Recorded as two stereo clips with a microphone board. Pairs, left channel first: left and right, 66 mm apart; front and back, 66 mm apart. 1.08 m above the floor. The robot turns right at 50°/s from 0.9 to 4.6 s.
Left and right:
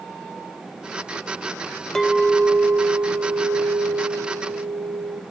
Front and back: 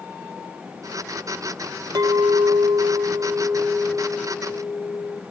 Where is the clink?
175° left, 0.7 m; by 5.2 s 55° right, 0.7 m.